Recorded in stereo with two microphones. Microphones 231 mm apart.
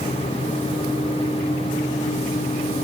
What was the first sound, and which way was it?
Only background noise.